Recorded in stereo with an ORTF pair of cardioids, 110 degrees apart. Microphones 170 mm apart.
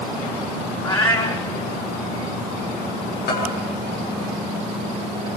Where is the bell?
70° left, 8.5 m.